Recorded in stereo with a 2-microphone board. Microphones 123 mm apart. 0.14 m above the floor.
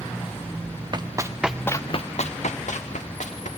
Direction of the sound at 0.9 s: 40° right (ahead or behind).